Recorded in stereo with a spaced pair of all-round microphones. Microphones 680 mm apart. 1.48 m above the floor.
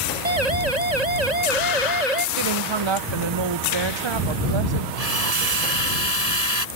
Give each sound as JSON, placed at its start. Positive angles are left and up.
{"t": 0.2, "sound": "a siren", "side_deg": -75}
{"t": 2.4, "sound": "a woman speaking", "side_deg": -45}
{"t": 5.0, "sound": "a drill", "side_deg": -60}